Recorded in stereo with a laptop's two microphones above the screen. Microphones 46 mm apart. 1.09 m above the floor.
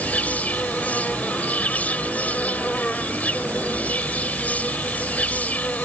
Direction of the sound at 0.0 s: 30° left (ahead or behind).